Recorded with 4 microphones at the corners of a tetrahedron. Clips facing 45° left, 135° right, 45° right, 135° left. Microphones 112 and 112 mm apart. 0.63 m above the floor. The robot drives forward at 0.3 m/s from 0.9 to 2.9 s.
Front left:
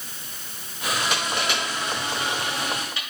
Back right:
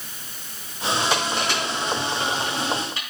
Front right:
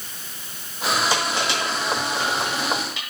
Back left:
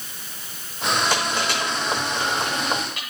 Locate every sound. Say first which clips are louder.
1.1 s crushing: back right 3 dB, even; 170° left, 5 m